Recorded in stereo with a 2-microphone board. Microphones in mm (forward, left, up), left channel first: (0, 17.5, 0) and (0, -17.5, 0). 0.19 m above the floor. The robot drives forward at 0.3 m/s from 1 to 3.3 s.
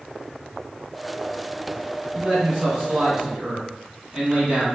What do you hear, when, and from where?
2.1 s a man speaking: 20° right (ahead or behind), 1.3 m